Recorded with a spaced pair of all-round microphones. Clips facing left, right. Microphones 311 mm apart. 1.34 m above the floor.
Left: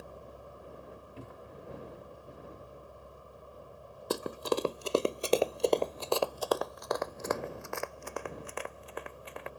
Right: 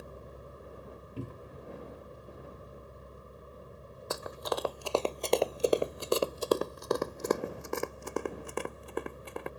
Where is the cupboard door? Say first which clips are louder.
Right 8 dB; 40° right (ahead or behind).